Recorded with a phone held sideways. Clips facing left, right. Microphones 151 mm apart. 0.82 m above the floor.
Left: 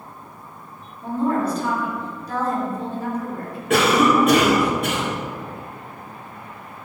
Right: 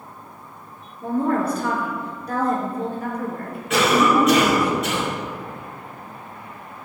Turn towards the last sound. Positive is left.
turn(degrees=55)  # may be behind; listen again after turning